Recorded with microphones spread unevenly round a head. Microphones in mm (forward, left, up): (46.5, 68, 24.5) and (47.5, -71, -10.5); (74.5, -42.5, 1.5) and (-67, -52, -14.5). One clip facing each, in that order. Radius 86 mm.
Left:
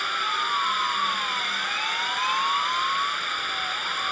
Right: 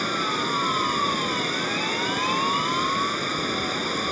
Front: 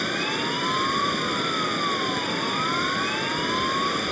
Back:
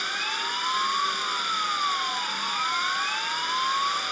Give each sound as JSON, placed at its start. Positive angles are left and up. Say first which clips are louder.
{"t": 0.0, "sound": "running water", "louder": "right 4 dB, front 7 dB", "azimuth_deg": -35}